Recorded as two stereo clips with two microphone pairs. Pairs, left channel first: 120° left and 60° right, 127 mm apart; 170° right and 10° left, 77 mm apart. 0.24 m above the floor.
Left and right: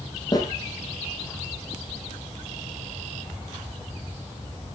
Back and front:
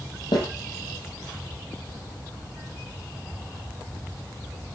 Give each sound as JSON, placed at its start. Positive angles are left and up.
{"t": 0.3, "sound": "a snare drum", "azimuth_deg": 180, "distance_m": 9.0}